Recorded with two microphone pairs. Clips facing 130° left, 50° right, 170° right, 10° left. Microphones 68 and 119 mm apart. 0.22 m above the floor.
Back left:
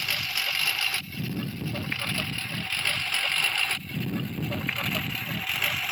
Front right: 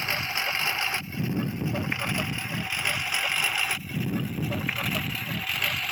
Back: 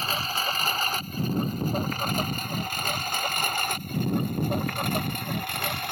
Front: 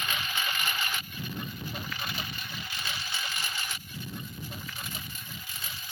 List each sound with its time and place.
0.0 s a lawn mower: 115° right; by 5.9 s 145° right